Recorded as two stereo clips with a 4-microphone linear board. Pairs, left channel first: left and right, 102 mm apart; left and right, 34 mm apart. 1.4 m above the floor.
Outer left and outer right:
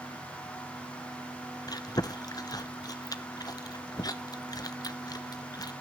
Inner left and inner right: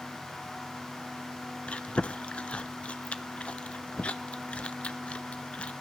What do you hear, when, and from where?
1.7 s chewing: 40° left (ahead or behind), 0.7 m